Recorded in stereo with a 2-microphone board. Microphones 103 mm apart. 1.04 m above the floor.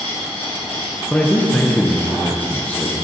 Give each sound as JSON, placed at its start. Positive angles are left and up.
{"t": 0.0, "sound": "an insect", "side_deg": 85, "distance_m": 2.5}
{"t": 1.1, "sound": "a man speaking", "side_deg": 15, "distance_m": 0.8}